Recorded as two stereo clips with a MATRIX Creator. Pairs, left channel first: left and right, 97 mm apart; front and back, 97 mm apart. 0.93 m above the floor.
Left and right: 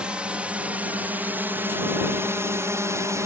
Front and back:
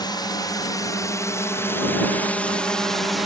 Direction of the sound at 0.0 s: 15° right.